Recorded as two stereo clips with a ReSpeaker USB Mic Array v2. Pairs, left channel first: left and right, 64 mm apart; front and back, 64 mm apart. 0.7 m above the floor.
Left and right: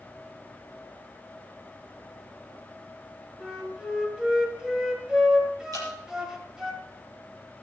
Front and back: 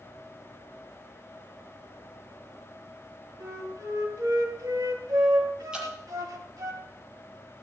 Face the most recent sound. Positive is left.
turn(degrees=-105)